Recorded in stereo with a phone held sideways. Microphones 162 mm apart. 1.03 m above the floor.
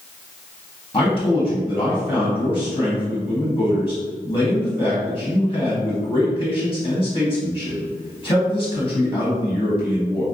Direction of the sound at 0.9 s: 25° left (ahead or behind).